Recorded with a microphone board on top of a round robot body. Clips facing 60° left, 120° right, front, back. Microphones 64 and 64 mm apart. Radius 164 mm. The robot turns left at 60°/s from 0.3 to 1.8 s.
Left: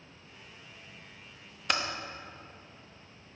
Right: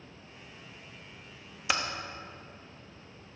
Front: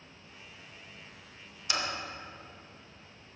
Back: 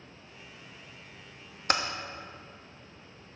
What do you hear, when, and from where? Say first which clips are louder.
1.7 s typing on a keyboard: even, back 5 dB; 155° left, 1.1 m; by 1.8 s 150° left, 1.1 m